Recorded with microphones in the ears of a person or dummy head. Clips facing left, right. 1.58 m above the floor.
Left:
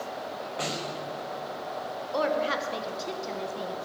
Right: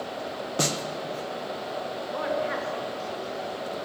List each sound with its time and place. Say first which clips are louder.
0.6 s a snare drum: right 6 dB; 55° right (ahead or behind), 1.0 m
2.1 s a woman speaking: left 2 dB; 50° left (ahead or behind), 1.8 m